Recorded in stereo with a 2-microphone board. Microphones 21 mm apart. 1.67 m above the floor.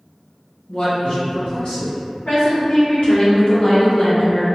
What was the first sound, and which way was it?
A man speaking, 60° left (ahead or behind).